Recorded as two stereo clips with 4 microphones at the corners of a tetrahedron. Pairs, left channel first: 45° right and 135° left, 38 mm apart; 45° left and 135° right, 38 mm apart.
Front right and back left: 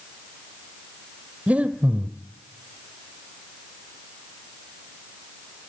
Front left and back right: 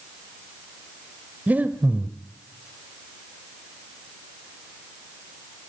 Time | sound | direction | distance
1.5 | breathing | 175° right | 1.7 m